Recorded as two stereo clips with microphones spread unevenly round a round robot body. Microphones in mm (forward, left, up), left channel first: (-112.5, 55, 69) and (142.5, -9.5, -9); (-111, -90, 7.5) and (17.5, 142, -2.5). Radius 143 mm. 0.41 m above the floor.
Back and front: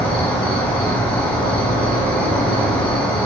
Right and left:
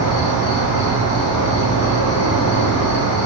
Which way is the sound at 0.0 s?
95° right.